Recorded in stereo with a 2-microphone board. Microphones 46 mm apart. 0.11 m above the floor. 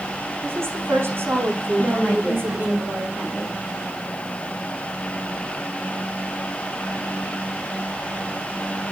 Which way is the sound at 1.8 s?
35° right (ahead or behind).